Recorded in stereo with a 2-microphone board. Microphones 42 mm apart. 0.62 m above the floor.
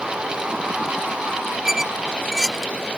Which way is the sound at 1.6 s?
10° right (ahead or behind).